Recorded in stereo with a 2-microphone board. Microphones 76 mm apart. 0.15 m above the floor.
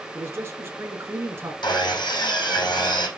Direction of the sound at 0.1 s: 30° right (ahead or behind).